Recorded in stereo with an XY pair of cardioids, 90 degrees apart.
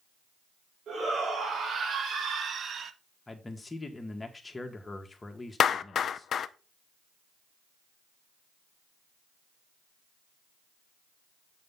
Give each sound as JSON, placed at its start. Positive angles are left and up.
{"t": 0.9, "sound": "a shout", "azimuth_deg": -65, "distance_m": 4.0}
{"t": 3.3, "sound": "a man speaking", "azimuth_deg": 20, "distance_m": 2.0}
{"t": 5.6, "sound": "a clap", "azimuth_deg": 60, "distance_m": 0.6}